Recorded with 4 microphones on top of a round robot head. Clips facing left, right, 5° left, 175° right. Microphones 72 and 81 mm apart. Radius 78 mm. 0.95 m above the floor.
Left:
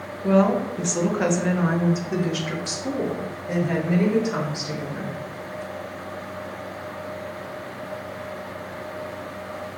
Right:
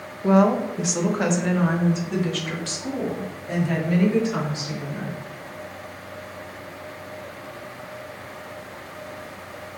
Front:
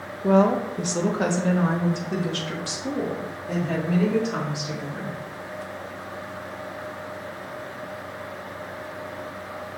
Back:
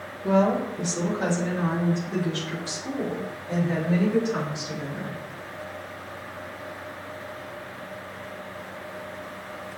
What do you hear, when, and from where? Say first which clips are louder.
0.2 s a woman speaking: right 1 dB, front 3 dB; 20° right, 1.1 m; by 5.2 s 20° left, 3.5 m